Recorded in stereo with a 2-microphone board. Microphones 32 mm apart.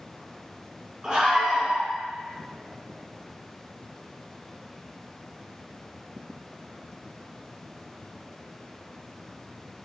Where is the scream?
25° right (ahead or behind), 1.2 m.